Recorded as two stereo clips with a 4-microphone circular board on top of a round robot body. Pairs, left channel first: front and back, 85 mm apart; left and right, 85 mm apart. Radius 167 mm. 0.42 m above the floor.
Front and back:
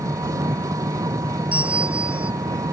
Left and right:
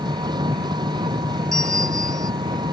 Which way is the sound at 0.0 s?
130° right.